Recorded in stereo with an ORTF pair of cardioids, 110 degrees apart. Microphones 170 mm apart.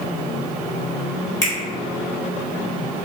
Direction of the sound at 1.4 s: 20° left.